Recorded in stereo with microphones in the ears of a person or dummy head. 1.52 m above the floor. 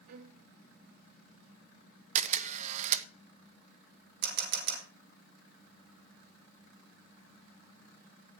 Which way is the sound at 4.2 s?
65° right (ahead or behind).